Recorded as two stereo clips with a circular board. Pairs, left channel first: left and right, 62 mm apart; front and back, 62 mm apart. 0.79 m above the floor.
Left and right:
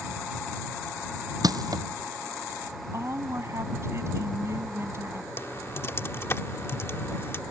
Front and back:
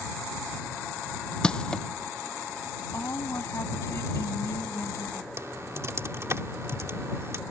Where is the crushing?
80° right.